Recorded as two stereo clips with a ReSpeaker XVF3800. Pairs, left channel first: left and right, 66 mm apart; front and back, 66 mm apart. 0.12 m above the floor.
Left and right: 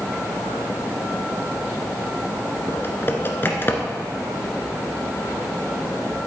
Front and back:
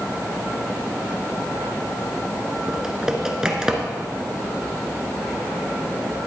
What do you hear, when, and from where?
2.7 s typing on a keyboard: 105° left, 1.3 m